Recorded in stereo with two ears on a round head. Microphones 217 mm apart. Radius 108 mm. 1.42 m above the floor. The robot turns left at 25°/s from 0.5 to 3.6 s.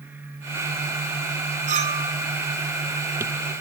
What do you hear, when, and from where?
1.7 s a clink: 35° right (ahead or behind), 3.5 m; by 2.1 s 20° right (ahead or behind), 3.5 m